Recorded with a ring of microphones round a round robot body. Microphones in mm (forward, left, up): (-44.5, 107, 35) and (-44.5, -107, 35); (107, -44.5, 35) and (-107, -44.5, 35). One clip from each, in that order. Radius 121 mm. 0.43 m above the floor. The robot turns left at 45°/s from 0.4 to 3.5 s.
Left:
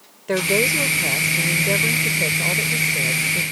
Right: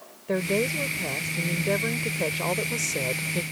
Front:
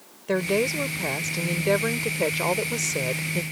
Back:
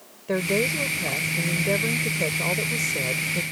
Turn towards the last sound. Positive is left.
turn(degrees=-70)